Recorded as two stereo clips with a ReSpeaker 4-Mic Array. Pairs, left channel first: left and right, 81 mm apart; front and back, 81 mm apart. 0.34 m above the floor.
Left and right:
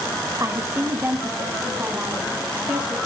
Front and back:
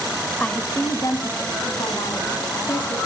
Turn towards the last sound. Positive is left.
turn(degrees=-15)